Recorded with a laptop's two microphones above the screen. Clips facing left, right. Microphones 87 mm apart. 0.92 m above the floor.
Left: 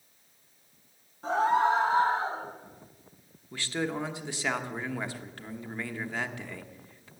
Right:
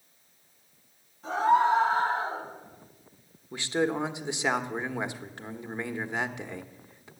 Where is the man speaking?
20° right (ahead or behind), 1.0 m.